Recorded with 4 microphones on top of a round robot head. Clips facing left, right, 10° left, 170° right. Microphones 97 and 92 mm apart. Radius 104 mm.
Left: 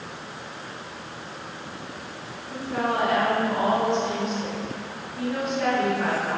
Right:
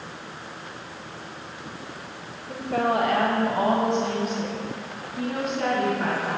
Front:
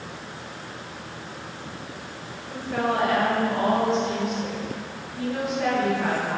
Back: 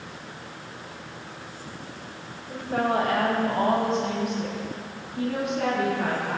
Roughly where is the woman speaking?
Right.